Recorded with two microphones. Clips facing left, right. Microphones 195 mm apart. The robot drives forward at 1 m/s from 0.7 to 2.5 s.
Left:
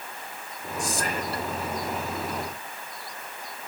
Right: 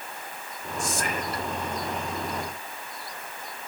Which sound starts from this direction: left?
Whispering, at 0.8 s.